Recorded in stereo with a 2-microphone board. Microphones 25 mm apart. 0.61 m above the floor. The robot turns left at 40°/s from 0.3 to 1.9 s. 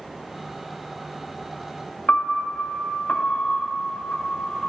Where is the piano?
60° left (ahead or behind), 0.6 m.